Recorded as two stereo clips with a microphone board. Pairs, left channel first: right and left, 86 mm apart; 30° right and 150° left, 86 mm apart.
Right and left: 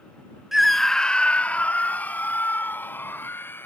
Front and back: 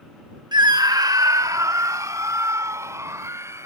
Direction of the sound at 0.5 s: 175° left.